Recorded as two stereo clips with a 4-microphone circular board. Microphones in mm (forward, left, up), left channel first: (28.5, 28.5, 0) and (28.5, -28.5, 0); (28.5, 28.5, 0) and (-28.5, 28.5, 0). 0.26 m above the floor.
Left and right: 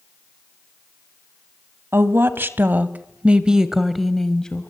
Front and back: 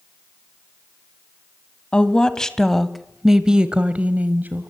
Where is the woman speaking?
65° right, 1.6 m; by 4.7 s 155° left, 1.4 m.